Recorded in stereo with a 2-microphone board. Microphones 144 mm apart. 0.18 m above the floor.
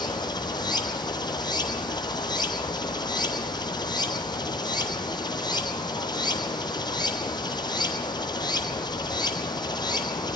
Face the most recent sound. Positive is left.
turn(degrees=30)  # may be behind; listen again after turning